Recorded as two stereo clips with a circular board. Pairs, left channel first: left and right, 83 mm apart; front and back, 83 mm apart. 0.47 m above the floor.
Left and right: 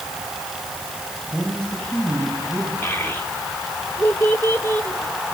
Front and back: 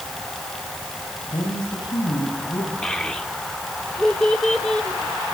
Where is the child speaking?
70° left, 1.0 m.